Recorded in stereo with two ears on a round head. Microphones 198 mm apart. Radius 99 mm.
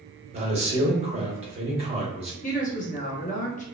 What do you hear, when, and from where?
0.3 s a man speaking: 30° right (ahead or behind), 1.1 m
2.4 s a woman speaking: 35° left (ahead or behind), 0.9 m